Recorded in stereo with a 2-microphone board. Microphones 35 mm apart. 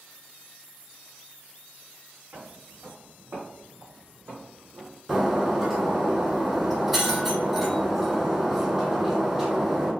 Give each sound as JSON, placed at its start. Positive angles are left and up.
{"t": 2.3, "sound": "footsteps", "side_deg": -50, "distance_m": 1.4}
{"t": 5.1, "sound": "breaking glass", "side_deg": -10, "distance_m": 1.5}